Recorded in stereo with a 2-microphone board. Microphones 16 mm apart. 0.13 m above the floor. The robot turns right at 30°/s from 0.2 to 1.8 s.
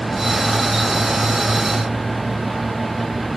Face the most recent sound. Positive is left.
No sound to turn to.